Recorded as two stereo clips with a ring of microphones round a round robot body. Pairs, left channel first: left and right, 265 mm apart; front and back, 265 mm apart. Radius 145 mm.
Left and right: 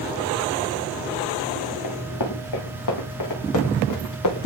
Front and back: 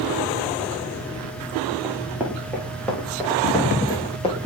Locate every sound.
1.8 s running footsteps: 100° left, 3 m; by 4.5 s 70° left, 3 m